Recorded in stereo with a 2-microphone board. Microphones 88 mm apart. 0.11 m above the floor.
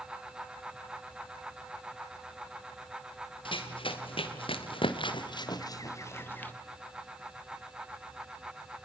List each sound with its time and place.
3.5 s running footsteps: 75° left (ahead or behind), 4 m; by 6.5 s 20° left (ahead or behind), 2.5 m